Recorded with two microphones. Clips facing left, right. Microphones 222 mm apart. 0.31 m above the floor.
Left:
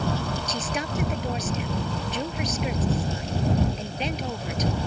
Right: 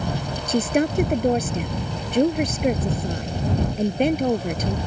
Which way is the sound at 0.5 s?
55° right (ahead or behind).